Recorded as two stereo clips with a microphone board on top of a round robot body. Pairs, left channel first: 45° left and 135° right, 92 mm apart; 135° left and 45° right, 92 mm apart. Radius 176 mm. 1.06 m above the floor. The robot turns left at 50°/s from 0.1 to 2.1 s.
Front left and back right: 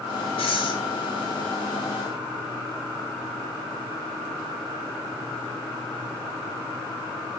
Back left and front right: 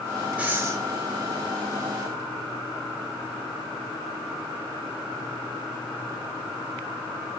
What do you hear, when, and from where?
0.4 s breathing: 30° left, 7 m; by 0.8 s 10° left, 7 m